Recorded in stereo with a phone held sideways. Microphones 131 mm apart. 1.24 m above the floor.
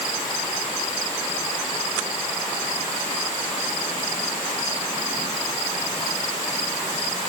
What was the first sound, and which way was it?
Only background noise.